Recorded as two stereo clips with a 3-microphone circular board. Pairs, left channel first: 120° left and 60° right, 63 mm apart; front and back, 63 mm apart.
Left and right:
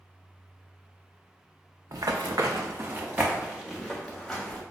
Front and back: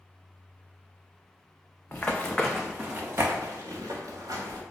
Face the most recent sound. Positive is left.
turn(degrees=-160)